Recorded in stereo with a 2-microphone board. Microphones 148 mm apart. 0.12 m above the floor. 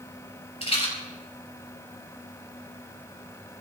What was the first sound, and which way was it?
A rattle, 40° left (ahead or behind).